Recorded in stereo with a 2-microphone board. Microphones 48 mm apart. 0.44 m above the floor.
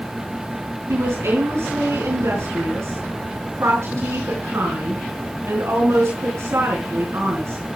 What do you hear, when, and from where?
0.9 s a woman speaking: 75° right (ahead or behind), 4 m